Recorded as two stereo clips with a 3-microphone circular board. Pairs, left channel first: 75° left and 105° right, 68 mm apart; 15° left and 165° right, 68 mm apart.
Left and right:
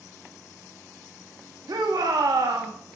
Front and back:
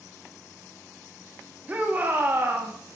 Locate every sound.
1.7 s a shout: 100° right, 1.8 m; by 2.7 s 115° right, 1.5 m